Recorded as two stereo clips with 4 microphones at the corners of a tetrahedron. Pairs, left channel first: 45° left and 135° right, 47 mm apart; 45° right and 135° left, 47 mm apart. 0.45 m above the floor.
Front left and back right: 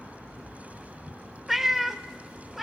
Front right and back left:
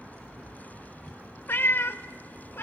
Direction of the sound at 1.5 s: 50° right.